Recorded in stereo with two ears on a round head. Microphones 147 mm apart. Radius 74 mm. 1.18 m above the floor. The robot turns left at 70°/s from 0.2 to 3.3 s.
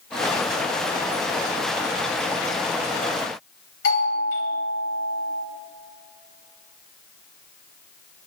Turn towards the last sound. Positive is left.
turn(degrees=75)  # may be behind; listen again after turning